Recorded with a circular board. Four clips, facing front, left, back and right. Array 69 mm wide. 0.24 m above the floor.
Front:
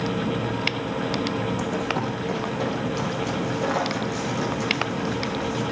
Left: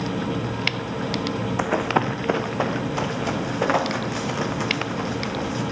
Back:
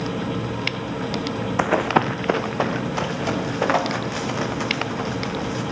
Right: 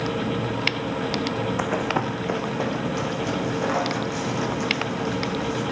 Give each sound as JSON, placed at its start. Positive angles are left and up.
{"t": 1.6, "sound": "running footsteps", "azimuth_deg": 170, "distance_m": 0.6}